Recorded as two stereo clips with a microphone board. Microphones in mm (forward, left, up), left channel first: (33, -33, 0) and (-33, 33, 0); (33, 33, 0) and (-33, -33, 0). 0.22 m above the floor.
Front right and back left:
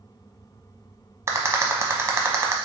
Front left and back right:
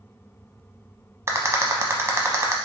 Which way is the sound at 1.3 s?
Straight behind.